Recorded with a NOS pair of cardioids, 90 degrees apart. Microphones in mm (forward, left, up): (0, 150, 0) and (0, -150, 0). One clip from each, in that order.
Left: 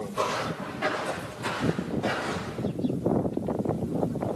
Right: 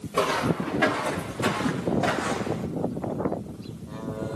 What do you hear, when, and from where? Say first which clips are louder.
0.1 s footsteps: right 5 dB; 70° right, 6 m; by 2.7 s 75° right, 4 m